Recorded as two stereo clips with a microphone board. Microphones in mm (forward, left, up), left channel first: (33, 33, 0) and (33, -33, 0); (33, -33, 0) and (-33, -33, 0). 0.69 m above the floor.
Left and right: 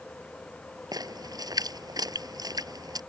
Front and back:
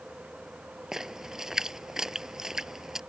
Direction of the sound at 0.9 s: 95° right.